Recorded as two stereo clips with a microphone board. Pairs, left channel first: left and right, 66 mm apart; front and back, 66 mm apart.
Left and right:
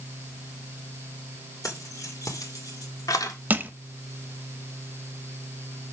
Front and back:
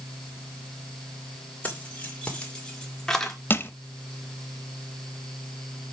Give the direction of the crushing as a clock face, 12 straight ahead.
1 o'clock.